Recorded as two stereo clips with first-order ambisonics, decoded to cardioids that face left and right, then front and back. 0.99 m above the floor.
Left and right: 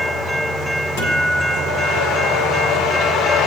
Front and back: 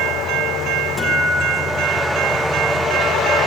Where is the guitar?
100° left, 6.5 m.